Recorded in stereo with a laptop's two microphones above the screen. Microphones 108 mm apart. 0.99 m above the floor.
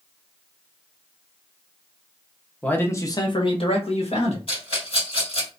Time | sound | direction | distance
2.6 | a man speaking | 10° left (ahead or behind) | 0.8 m
4.5 | a rattle | 60° left (ahead or behind) | 1.8 m